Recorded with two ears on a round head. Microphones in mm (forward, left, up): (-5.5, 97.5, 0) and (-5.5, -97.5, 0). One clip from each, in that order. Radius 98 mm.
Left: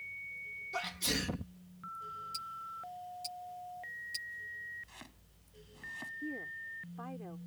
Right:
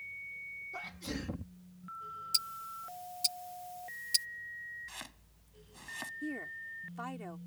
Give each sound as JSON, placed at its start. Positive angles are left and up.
{"t": 0.7, "sound": "a sneeze", "side_deg": 80}
{"t": 2.3, "sound": "ticking", "side_deg": -50}
{"t": 4.9, "sound": "chopping", "side_deg": -45}
{"t": 6.2, "sound": "a woman speaking", "side_deg": -80}